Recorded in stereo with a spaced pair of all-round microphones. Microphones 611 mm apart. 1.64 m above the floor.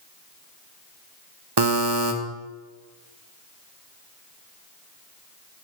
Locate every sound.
1.6 s a buzzer: 40° right (ahead or behind), 0.9 m